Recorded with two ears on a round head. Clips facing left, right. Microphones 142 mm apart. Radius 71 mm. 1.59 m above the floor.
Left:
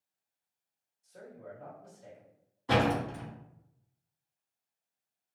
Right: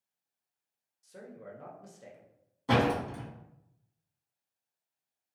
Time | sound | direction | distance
1.0 | a man speaking | 80° right | 0.9 m
2.7 | a door slam | 50° right (ahead or behind) | 1.6 m